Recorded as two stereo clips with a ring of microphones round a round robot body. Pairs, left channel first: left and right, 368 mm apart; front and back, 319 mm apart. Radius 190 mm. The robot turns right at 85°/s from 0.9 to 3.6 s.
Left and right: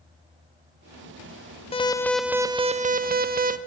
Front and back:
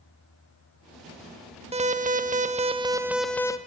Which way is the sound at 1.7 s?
140° left.